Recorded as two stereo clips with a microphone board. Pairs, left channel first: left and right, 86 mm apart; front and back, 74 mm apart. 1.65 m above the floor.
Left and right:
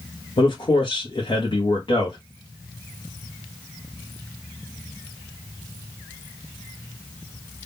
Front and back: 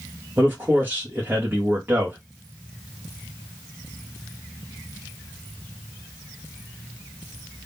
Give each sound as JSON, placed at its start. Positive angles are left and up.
{"t": 0.4, "sound": "a man speaking", "azimuth_deg": 115, "distance_m": 1.0}